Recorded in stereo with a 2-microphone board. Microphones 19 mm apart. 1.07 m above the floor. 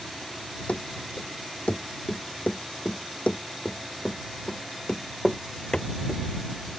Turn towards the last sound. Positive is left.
turn(degrees=35)  # may be behind; listen again after turning